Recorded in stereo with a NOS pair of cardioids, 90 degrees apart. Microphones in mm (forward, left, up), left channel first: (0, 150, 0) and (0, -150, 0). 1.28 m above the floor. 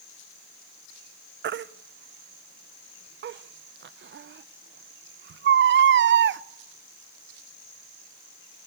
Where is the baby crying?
40° right, 0.5 m.